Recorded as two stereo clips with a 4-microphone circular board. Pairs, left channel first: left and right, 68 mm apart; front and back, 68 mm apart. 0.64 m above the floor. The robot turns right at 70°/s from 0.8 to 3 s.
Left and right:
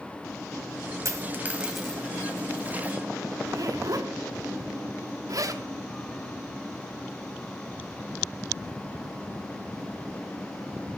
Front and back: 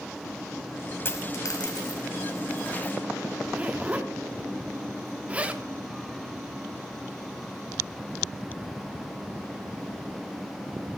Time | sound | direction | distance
1.1 | a dropped coin | 55° right | 1.0 m
3.4 | a zipper | 110° right | 0.7 m